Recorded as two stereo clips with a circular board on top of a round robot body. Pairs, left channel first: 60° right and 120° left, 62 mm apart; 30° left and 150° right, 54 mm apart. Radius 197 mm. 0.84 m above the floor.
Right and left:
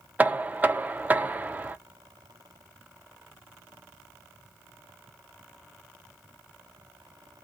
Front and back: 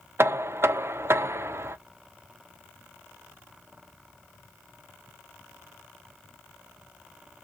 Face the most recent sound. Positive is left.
turn(degrees=180)